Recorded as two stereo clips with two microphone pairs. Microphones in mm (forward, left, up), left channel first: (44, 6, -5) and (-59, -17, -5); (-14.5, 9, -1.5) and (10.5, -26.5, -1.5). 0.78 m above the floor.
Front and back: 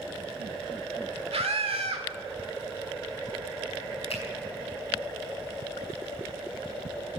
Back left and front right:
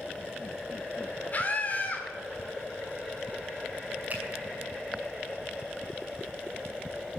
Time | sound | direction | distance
1.3 | a scream | 175° left | 1.9 m
4.1 | a finger snap | straight ahead | 5 m